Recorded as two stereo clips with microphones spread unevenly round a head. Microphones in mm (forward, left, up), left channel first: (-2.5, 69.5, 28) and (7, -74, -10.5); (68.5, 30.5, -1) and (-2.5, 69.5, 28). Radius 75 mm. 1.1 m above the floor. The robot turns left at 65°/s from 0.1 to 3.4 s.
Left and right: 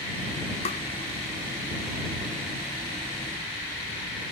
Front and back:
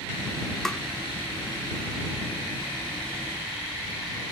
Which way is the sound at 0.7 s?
40° left.